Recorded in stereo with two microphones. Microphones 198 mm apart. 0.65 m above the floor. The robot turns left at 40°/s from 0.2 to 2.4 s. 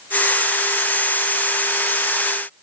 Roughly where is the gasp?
No gasp in this recording.